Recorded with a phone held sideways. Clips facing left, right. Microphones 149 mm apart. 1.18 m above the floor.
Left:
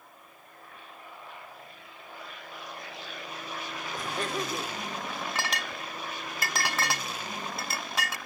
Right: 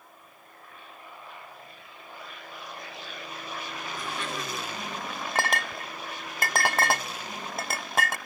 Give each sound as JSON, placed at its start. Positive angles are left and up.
{"t": 3.9, "sound": "laughter", "side_deg": 40, "distance_m": 4.0}
{"t": 5.3, "sound": "a clink", "side_deg": -50, "distance_m": 0.5}